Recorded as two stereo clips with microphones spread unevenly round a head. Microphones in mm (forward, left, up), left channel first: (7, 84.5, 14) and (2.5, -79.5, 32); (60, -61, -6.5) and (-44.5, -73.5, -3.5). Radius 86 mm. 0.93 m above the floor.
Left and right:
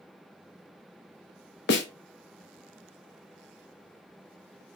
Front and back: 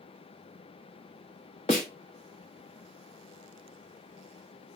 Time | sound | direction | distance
1.7 | a snare drum | 65° left | 0.8 m